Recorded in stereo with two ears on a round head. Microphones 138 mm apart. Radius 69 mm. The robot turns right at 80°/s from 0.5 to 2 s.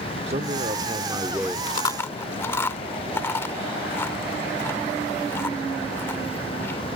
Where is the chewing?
35° left (ahead or behind); by 7.0 s 15° left (ahead or behind).